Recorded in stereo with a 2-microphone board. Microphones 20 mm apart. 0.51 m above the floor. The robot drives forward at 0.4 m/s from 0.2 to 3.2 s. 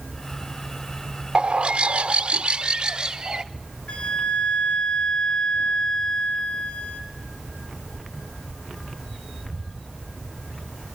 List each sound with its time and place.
1.4 s a bird: 55° right (ahead or behind), 0.5 m; by 3.4 s 35° right (ahead or behind), 0.7 m
3.9 s a flute: 85° left, 3 m